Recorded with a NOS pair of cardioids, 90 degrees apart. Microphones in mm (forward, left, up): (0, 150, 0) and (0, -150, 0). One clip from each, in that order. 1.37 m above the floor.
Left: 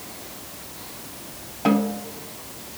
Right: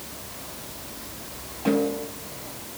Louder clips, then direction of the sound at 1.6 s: Left 1 dB; 60° left.